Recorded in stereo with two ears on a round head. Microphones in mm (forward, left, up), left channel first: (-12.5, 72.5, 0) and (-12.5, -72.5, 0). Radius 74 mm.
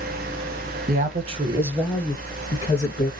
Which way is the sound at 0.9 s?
50° right (ahead or behind).